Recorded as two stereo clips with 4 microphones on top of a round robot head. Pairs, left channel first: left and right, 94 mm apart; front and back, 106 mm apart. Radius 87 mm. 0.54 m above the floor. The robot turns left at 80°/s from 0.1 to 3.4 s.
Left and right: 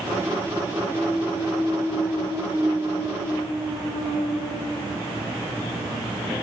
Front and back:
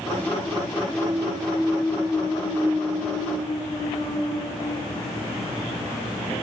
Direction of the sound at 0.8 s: 115° left.